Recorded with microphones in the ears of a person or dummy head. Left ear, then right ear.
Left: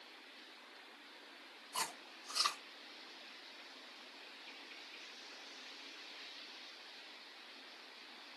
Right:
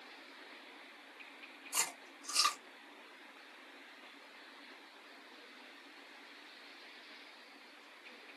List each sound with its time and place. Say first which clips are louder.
1.7 s chewing: right 3 dB; 50° right (ahead or behind), 1.6 m